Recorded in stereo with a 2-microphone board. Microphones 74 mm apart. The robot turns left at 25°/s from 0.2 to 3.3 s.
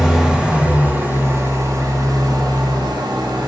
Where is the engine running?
10° right, 2.5 m; by 3.5 s 85° right, 2.5 m.